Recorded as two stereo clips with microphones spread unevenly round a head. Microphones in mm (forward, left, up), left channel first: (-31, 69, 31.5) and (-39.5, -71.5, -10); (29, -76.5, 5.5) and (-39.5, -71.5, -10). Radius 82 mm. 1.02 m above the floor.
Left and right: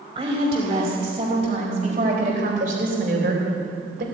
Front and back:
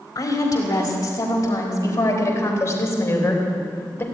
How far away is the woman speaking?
About 4.5 m.